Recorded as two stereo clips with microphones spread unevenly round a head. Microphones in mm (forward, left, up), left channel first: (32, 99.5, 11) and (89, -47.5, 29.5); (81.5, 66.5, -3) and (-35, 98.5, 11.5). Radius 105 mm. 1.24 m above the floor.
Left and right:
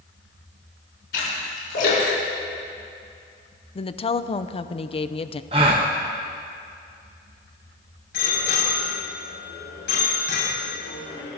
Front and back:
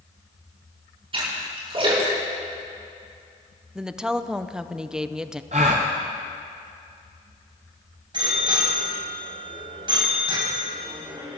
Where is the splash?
125° left, 7 m.